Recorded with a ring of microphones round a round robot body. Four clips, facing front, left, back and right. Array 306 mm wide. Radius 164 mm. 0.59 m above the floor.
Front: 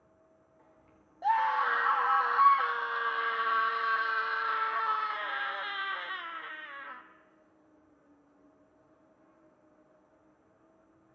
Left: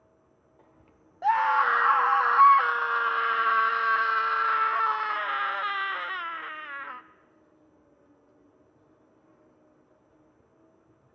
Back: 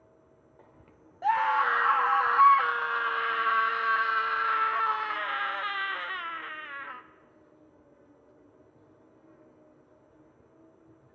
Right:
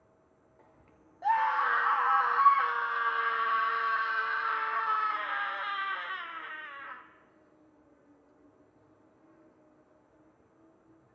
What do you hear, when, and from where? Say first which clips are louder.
0.0 s an insect: left 2 dB, back 4 dB; 170° left, 1.3 m
1.2 s a scream: left 4 dB, back 2 dB; 110° left, 0.7 m